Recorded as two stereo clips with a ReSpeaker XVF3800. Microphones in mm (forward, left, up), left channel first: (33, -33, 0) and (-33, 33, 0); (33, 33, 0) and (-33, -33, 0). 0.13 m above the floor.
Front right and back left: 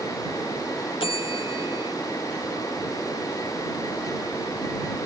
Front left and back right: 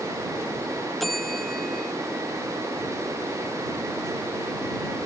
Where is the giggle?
I don't hear a giggle.